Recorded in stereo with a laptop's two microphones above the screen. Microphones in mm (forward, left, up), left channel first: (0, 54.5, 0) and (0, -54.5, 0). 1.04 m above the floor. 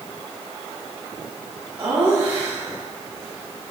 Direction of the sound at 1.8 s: 15° right (ahead or behind).